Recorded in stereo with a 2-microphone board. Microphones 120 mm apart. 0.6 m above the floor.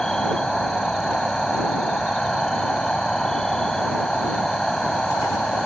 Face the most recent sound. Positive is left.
turn(degrees=5)  # may be behind; listen again after turning